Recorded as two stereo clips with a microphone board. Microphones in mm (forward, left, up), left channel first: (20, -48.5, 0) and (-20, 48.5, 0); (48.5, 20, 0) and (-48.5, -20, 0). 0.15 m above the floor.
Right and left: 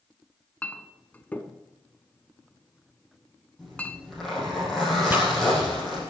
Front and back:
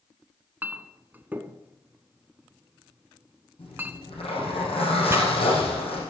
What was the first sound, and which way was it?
A clink, 120° right.